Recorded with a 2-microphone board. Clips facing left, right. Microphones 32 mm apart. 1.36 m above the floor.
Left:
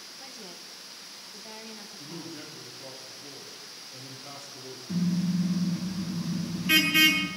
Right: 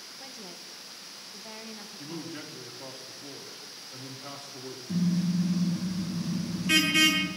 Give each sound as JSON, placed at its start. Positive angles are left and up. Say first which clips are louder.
{"t": 0.2, "sound": "a woman speaking", "louder": "even", "side_deg": -5, "distance_m": 1.3}
{"t": 2.0, "sound": "a man speaking", "louder": "right 3 dB", "side_deg": -55, "distance_m": 3.5}
{"t": 4.9, "sound": "a car horn", "louder": "even", "side_deg": 5, "distance_m": 4.5}